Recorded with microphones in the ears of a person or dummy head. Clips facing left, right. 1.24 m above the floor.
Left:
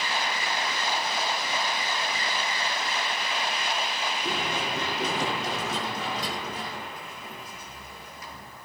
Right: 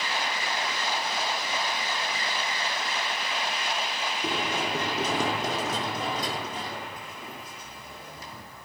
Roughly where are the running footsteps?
Right.